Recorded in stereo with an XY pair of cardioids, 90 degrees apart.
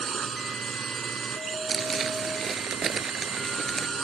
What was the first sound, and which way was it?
A drone, 55° right.